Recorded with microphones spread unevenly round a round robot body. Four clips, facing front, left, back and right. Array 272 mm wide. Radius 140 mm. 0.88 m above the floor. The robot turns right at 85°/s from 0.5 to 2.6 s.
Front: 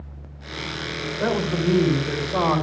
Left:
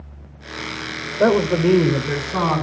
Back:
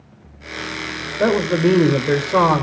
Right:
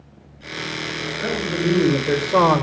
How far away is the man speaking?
About 3 m.